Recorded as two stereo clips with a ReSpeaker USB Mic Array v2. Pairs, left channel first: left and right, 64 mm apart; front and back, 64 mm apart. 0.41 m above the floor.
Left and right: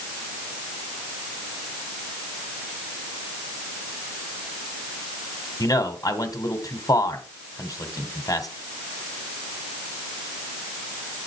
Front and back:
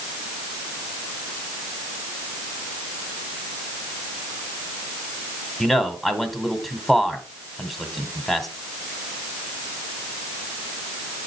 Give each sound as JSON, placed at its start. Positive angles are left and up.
{"t": 5.6, "sound": "a man speaking", "azimuth_deg": 90, "distance_m": 2.5}